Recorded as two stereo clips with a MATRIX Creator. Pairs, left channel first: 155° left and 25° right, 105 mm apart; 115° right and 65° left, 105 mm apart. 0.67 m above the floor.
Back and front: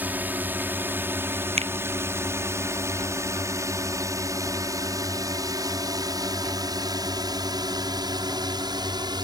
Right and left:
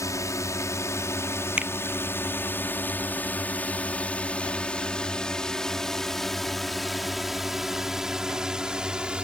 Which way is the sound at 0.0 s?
85° right.